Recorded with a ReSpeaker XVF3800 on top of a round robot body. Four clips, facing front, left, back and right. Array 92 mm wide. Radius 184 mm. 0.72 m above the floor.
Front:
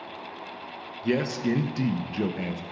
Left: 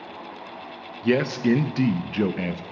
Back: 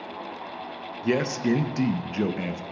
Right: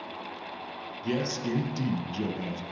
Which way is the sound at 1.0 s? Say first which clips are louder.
Left 9 dB, back 2 dB; 105° left.